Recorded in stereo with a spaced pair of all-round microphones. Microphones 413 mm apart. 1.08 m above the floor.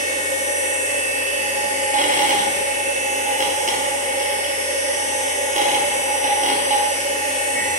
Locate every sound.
0.0 s a machine running: 20° right (ahead or behind), 1.2 m